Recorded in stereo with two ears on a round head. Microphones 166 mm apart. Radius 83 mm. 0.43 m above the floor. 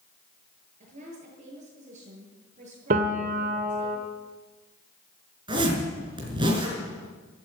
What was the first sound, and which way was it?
A woman speaking, 40° right (ahead or behind).